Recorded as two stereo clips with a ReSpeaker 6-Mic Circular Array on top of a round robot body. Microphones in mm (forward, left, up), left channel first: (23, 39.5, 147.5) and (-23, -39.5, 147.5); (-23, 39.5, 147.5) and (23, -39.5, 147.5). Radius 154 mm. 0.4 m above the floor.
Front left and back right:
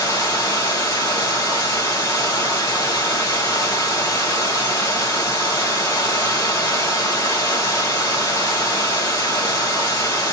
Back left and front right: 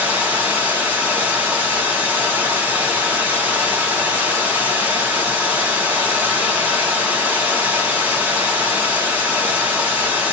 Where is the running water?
5° left, 2.5 m.